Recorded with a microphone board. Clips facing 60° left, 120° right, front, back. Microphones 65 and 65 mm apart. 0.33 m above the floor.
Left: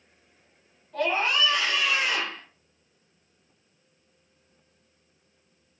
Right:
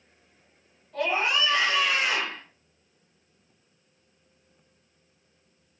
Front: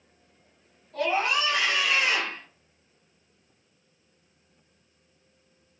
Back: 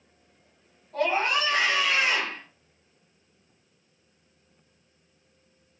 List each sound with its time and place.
0.9 s a scream: 150° left, 1.1 m; by 2.4 s 125° right, 1.7 m